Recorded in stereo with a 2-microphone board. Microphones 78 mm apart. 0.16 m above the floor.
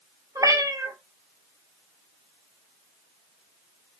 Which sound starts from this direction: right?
A cat meowing, at 0.3 s.